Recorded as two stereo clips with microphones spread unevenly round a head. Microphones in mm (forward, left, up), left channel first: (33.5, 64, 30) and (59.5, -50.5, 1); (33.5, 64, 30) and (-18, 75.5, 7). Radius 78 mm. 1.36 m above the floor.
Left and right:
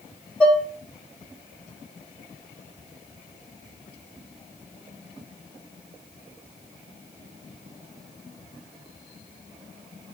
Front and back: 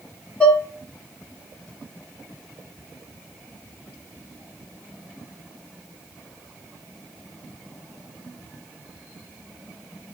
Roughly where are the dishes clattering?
Ahead left.